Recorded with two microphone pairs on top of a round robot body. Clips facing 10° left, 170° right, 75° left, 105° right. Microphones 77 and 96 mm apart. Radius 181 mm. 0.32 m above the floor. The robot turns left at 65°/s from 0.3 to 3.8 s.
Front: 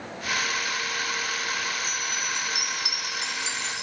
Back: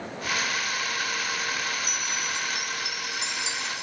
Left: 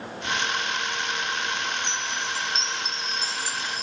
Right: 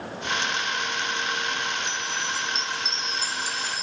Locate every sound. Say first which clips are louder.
1.8 s a chime: even, even; 70° left, 0.6 m; by 3.8 s 60° right, 0.6 m